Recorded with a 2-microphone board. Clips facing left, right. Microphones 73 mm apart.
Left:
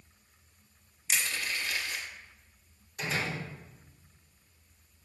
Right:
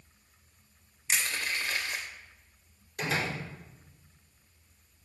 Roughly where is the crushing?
Right.